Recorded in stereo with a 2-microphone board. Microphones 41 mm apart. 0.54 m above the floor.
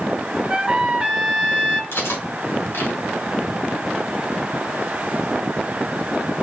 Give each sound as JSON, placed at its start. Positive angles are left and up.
{"t": 0.5, "sound": "a trumpet", "side_deg": -25, "distance_m": 0.8}
{"t": 1.9, "sound": "cutlery clinking", "side_deg": 70, "distance_m": 2.0}